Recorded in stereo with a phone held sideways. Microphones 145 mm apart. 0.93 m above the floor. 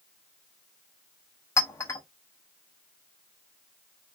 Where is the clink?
20° left (ahead or behind), 0.8 m.